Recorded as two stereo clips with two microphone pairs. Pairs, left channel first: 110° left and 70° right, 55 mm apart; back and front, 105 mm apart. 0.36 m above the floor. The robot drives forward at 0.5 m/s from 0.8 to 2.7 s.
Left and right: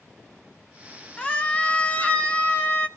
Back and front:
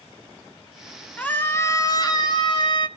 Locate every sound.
1.2 s a scream: 130° left, 0.8 m; by 2.9 s 170° left, 1.2 m